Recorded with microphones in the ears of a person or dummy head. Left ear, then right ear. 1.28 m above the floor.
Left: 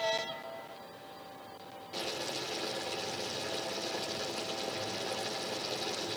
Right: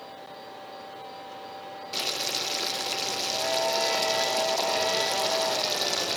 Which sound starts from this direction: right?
Boiling, at 1.9 s.